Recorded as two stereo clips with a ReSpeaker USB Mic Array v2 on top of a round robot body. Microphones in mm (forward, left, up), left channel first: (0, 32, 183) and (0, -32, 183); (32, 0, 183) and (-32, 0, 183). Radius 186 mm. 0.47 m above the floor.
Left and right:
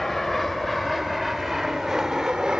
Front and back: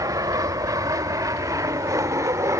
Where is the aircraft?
Straight behind; by 2.6 s 165° right.